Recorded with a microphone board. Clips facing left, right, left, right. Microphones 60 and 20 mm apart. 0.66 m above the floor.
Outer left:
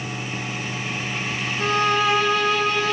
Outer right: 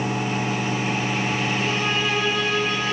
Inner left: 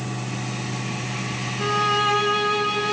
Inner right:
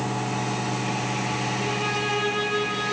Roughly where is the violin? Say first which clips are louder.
Outer left 4 dB, inner left 5 dB; left.